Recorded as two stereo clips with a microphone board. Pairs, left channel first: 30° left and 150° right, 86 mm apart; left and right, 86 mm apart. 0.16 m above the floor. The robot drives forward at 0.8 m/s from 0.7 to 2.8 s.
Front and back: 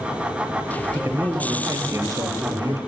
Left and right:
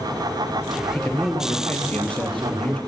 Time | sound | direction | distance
0.9 | a man speaking | 160° left | 3 m